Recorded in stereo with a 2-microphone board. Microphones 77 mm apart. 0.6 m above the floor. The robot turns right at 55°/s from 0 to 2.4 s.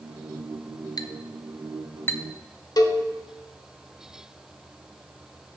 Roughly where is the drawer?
I don't hear a drawer.